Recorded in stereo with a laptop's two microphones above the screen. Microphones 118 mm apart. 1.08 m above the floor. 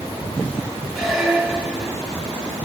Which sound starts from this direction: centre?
A squeak, at 0.9 s.